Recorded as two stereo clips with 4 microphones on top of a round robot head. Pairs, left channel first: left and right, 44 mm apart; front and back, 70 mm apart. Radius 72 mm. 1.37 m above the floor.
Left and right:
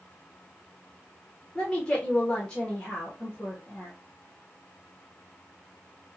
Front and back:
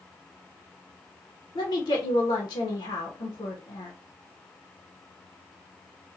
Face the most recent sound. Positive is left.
turn(degrees=10)